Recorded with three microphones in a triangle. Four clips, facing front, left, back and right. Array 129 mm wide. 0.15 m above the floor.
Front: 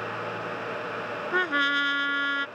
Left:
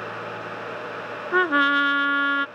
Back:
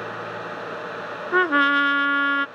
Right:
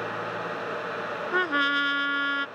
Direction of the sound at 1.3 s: 145° left.